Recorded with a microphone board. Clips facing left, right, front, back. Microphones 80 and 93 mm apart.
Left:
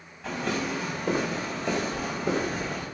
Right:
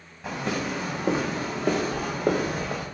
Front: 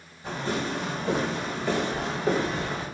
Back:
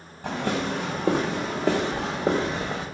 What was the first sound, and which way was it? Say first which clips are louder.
Footsteps: even, back 3 dB; 165° right.